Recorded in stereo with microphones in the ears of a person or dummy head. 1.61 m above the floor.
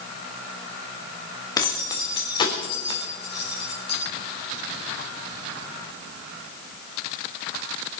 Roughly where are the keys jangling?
Left.